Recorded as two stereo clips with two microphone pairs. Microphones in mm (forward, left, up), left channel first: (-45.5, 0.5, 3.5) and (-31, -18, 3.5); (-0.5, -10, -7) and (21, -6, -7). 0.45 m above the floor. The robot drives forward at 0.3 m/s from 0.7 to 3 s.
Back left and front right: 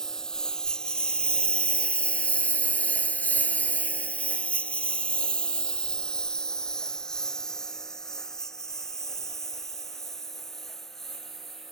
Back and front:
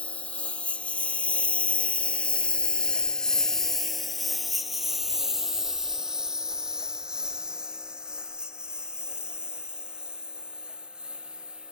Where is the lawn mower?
160° right; by 11.7 s 55° left.